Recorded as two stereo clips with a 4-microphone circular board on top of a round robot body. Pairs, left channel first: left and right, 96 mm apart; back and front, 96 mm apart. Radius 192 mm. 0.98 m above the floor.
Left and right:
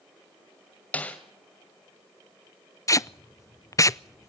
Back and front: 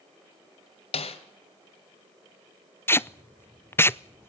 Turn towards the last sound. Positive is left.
turn(degrees=125)